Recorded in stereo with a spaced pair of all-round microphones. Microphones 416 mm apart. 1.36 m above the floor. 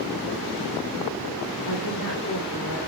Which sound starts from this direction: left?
A woman speaking, at 1.7 s.